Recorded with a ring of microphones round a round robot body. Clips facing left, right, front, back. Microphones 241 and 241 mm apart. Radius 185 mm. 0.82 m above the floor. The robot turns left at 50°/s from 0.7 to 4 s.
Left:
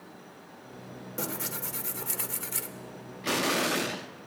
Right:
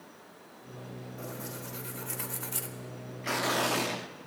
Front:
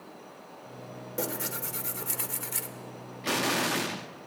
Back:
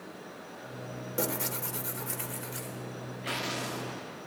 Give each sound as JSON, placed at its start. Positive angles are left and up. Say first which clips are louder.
{"t": 1.2, "sound": "tearing paper", "louder": "left 6 dB, back 1 dB", "azimuth_deg": 95, "distance_m": 1.1}
{"t": 3.2, "sound": "an explosion", "louder": "left 3 dB, front 8 dB", "azimuth_deg": 40, "distance_m": 0.7}